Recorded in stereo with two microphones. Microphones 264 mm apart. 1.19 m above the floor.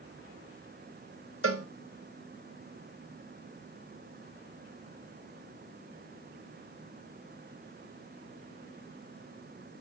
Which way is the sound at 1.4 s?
55° right (ahead or behind).